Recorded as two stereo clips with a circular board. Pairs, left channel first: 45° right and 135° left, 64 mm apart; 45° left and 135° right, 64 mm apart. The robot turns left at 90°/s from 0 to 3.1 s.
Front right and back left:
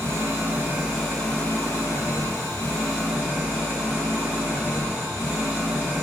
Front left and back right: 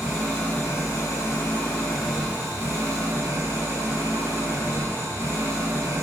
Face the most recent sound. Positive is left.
turn(degrees=-140)